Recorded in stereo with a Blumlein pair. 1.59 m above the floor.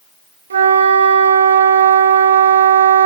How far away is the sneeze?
No sneeze in this recording.